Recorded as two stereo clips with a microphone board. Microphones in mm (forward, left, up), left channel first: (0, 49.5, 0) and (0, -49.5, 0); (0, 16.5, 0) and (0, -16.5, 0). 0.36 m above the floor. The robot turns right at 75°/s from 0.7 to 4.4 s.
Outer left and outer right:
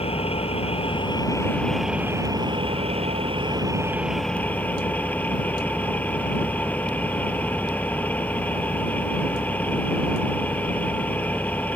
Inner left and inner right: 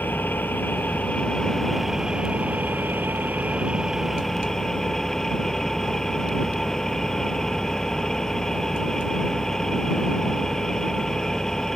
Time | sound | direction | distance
0.0 | an engine running | 95° left | ?